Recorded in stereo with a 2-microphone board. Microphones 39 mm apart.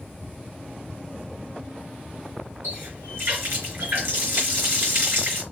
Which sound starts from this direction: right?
A running tap, at 2.6 s.